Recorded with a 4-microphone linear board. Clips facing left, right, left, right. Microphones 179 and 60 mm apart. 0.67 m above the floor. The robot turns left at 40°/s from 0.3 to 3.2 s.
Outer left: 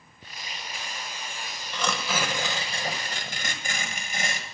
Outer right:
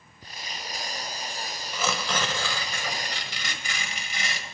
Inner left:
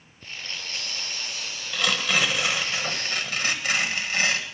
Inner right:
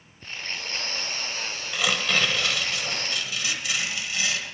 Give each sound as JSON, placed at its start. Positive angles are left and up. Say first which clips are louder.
{"t": 1.7, "sound": "tearing paper", "louder": "even, even", "azimuth_deg": -170, "distance_m": 1.1}